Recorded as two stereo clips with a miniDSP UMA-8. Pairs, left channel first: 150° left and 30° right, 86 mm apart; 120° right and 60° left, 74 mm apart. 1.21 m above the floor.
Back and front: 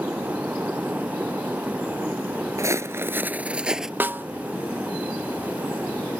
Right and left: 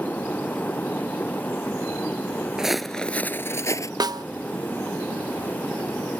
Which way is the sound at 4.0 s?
40° left.